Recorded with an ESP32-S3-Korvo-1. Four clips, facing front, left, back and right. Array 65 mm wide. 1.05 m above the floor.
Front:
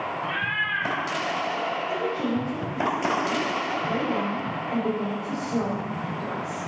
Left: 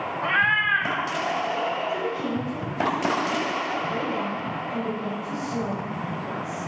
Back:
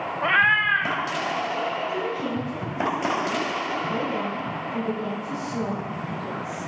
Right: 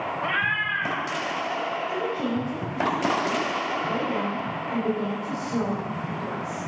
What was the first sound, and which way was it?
A cat meowing, 175° left.